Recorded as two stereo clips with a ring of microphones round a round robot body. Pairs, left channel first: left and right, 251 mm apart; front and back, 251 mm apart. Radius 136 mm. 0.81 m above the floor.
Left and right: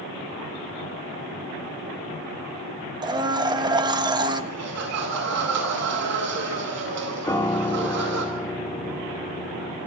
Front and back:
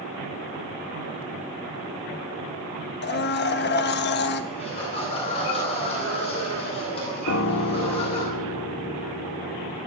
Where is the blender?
25° right, 1.3 m.